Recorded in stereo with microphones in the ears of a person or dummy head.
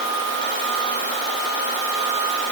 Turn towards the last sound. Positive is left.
No sound to turn to.